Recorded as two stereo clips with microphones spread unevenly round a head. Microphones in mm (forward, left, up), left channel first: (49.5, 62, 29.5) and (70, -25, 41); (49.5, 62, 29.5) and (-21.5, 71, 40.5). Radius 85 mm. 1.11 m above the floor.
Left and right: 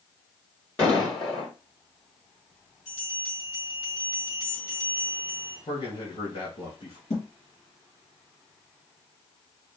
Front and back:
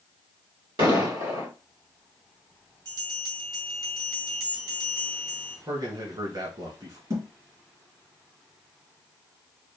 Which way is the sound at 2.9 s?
160° left.